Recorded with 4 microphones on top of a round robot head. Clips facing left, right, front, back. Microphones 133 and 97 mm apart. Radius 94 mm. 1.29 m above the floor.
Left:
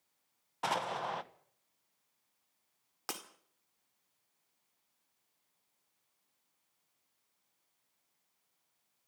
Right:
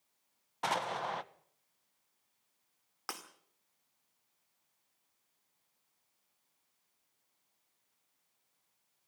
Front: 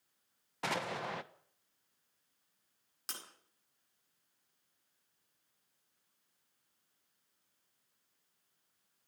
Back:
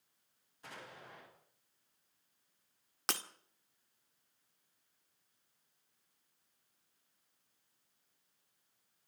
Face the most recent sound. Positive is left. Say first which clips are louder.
# left 1 dB, back 11 dB
turn(degrees=165)